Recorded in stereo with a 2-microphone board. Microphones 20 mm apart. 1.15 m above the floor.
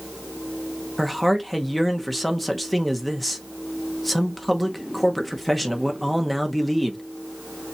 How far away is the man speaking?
About 0.8 m.